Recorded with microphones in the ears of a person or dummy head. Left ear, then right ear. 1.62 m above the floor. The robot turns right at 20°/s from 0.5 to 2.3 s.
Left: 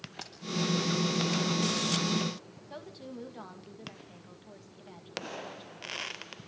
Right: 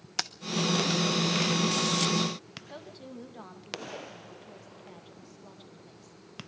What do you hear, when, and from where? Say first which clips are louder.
0.2 s keys jangling: right 14 dB; 60° right (ahead or behind), 1.1 m
2.7 s a woman speaking: left 3 dB; 5° left (ahead or behind), 2.5 m